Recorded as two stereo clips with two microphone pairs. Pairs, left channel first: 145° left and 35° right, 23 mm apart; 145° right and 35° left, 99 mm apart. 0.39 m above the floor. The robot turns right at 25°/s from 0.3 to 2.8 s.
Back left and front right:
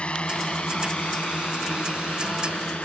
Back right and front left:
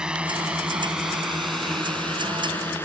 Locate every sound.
0.0 s a drone: 115° left; by 2.9 s 145° left